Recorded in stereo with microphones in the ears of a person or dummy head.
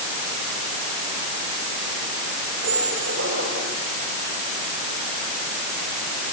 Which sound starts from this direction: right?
A squeak, at 2.6 s.